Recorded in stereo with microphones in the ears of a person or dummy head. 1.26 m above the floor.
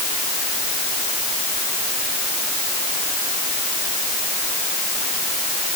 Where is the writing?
I don't hear writing.